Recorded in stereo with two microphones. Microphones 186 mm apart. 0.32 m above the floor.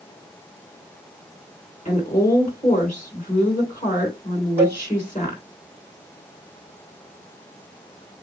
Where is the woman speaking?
45° left (ahead or behind), 4 m.